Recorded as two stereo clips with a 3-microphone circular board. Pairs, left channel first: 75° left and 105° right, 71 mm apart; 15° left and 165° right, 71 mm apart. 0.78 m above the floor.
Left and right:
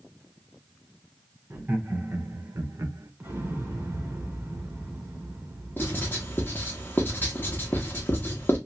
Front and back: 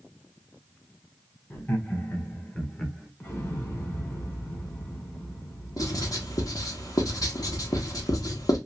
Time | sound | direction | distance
1.5 | laughter | 45° right | 1.9 m
3.2 | an explosion | 45° right | 1.9 m
5.8 | writing | 20° left | 1.3 m